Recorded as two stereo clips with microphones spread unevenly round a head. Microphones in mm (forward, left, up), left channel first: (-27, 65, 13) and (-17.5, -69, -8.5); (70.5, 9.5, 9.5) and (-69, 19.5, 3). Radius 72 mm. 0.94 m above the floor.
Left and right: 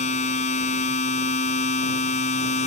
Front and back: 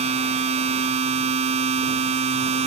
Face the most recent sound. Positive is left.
turn(degrees=130)